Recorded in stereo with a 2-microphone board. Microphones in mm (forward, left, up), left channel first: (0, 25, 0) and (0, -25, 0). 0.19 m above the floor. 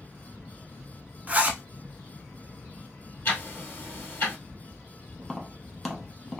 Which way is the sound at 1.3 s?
30° right (ahead or behind).